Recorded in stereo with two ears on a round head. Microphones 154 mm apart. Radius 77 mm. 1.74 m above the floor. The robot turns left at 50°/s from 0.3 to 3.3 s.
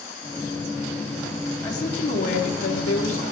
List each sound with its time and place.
1.6 s a woman speaking: 160° left, 4.5 m; by 3.2 s 80° left, 4.5 m